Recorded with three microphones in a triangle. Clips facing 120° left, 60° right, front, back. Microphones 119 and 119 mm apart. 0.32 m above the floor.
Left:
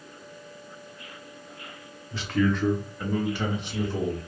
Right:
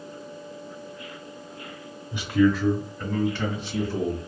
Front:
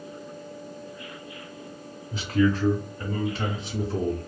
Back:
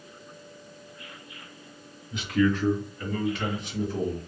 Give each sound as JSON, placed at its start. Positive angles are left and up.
{"t": 2.1, "sound": "a man speaking", "azimuth_deg": 0, "distance_m": 1.0}